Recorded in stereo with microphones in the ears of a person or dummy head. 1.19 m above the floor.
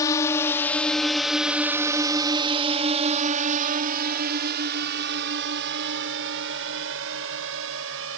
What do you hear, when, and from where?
0.0 s a drone: 25° left (ahead or behind); by 8.2 s 70° right (ahead or behind)